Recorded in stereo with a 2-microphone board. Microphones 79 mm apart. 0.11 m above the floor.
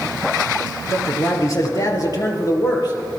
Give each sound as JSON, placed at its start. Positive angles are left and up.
{"t": 0.9, "sound": "a man speaking", "side_deg": 35, "distance_m": 2.5}